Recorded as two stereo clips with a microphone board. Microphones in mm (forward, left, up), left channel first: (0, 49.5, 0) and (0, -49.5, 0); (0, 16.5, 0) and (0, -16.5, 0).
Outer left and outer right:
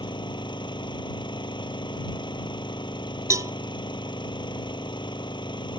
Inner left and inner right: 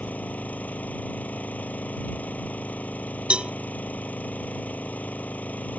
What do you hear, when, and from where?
0.0 s an engine running: 55° left (ahead or behind)
3.3 s a cowbell: 40° right (ahead or behind)